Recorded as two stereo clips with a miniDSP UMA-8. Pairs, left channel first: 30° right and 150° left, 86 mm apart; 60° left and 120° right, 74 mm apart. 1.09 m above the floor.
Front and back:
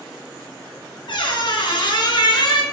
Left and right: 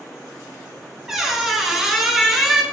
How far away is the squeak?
About 0.6 m.